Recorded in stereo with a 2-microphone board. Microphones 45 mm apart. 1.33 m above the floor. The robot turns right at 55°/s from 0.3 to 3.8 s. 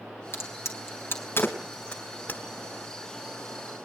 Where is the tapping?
40° left (ahead or behind), 1.5 m; by 2.4 s 35° left (ahead or behind), 1.5 m.